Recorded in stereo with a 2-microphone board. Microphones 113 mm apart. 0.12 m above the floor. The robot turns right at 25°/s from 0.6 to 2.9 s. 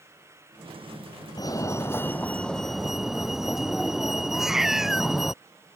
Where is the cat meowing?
5° right (ahead or behind).